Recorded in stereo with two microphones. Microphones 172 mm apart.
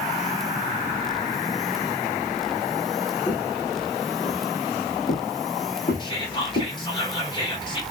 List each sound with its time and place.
3.3 s footsteps: 15° left (ahead or behind), 0.8 m; by 6.7 s 70° left (ahead or behind), 2 m
6.0 s whispering: 25° left (ahead or behind), 1.5 m